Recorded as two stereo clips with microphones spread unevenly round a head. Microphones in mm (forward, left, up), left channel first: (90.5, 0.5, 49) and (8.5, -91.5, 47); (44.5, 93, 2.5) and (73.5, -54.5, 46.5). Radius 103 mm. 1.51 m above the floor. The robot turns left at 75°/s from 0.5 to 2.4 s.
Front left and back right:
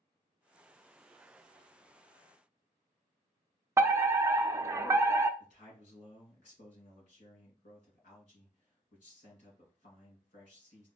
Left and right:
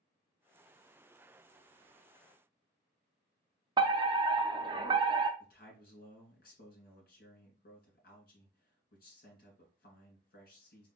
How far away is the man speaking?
About 2.5 m.